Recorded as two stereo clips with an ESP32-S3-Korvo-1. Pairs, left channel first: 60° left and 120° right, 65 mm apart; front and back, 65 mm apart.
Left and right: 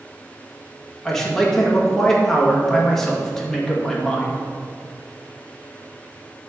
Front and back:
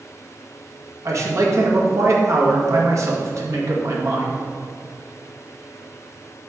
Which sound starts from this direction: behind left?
A man speaking, at 1.1 s.